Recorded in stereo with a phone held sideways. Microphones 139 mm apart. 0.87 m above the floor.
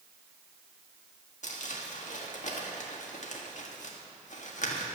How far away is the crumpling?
About 1.5 m.